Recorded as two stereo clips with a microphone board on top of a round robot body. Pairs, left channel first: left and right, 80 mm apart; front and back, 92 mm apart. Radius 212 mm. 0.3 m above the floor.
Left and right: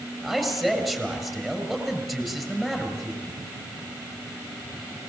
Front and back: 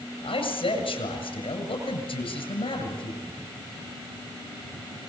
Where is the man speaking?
5° left, 7.5 m.